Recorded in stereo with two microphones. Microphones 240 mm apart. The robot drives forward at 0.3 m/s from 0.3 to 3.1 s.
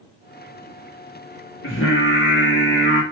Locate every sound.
1.6 s singing: 60° left (ahead or behind), 1.2 m; by 3.0 s 45° left (ahead or behind), 1.5 m